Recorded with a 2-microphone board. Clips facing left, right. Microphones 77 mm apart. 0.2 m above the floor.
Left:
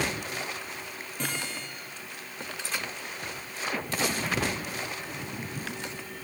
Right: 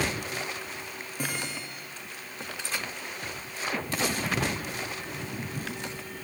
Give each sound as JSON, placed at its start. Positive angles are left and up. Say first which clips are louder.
{"t": 1.2, "sound": "a guitar", "louder": "even", "side_deg": -10, "distance_m": 8.5}